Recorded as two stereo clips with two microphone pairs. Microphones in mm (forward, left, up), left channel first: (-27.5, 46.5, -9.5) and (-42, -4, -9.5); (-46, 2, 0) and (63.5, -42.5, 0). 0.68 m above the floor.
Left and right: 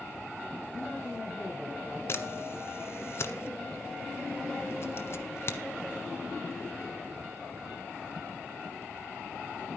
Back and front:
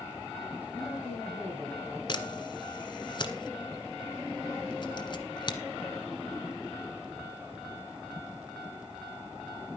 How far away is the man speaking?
About 9 m.